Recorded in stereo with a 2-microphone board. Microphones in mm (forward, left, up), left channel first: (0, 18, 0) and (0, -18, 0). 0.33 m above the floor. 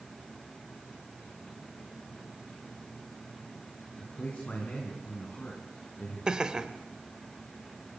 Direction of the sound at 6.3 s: 20° right (ahead or behind).